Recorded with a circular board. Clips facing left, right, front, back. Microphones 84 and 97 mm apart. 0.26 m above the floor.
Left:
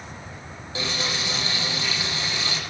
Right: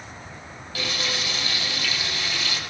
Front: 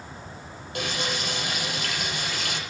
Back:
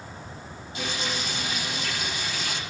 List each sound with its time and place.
0.8 s frying: 25° left, 8 m